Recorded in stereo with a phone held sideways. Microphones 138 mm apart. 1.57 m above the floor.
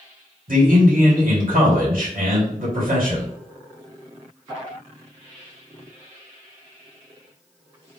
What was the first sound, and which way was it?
A man speaking, 85° right.